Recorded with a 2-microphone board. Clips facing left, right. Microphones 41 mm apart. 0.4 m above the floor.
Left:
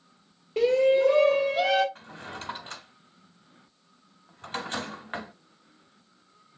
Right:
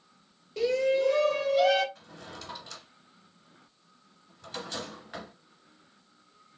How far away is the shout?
About 1.1 m.